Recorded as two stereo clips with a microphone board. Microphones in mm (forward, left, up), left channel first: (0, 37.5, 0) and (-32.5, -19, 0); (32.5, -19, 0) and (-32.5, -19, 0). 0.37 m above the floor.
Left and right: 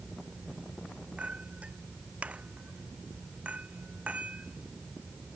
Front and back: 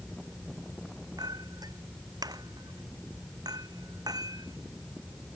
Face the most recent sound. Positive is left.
turn(degrees=170)